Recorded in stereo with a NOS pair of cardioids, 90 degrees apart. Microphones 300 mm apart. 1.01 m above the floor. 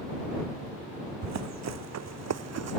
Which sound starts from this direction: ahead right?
Running footsteps, at 1.2 s.